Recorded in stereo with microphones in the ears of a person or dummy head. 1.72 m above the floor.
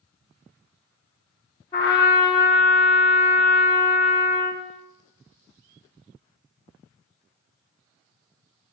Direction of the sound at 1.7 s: 20° left (ahead or behind).